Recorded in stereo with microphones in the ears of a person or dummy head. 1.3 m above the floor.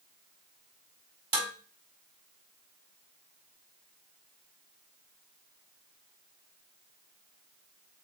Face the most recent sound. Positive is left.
turn(degrees=-30)  # may be behind; listen again after turning